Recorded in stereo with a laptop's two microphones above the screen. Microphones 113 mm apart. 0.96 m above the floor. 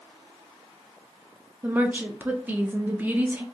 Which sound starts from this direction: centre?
A woman speaking, at 1.6 s.